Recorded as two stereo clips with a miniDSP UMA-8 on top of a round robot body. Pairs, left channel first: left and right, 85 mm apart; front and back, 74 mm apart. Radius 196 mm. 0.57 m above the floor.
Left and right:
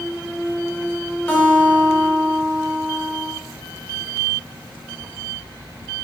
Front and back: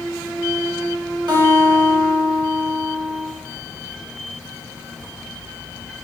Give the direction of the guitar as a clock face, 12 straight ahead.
7 o'clock.